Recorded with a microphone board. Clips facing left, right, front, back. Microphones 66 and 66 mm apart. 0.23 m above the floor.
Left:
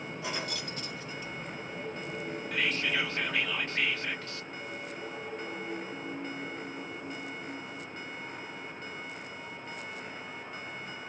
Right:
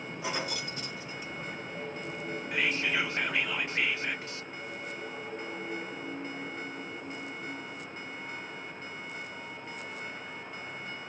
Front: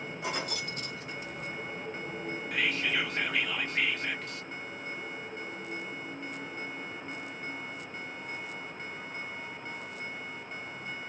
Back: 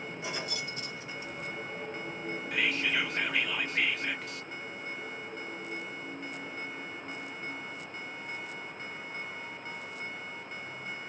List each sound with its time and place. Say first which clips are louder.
0.2 s keys jangling: right 3 dB, front 3 dB; 20° right, 1.5 m
2.5 s whispering: right 1 dB, even; 95° right, 0.9 m